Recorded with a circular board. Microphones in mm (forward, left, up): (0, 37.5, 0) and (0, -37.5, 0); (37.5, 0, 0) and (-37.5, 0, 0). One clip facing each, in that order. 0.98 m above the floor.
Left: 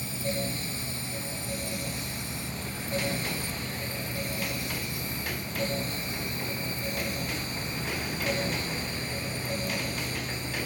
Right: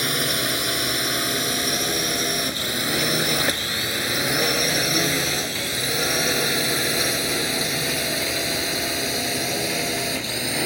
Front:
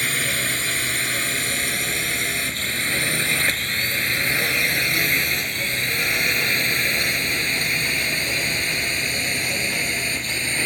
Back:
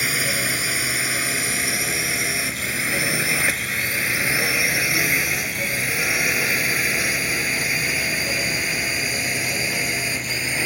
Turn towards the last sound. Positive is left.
turn(degrees=-95)